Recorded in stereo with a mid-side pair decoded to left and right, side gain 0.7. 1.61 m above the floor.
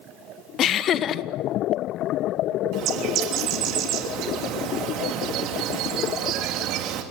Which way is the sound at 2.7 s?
55° right.